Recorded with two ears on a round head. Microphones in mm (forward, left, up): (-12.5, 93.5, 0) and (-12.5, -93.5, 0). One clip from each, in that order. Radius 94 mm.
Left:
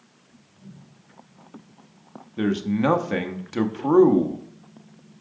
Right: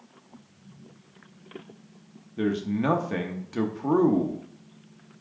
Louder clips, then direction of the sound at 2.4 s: Left 3 dB; 20° left (ahead or behind).